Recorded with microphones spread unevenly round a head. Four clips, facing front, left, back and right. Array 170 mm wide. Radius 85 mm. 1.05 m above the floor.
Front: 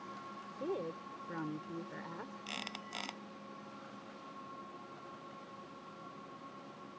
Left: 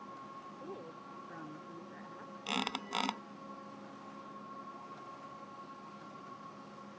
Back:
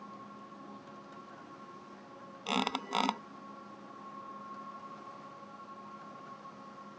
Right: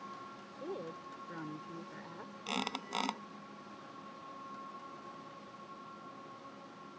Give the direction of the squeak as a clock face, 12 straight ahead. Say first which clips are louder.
Left 1 dB, back 12 dB; 6 o'clock.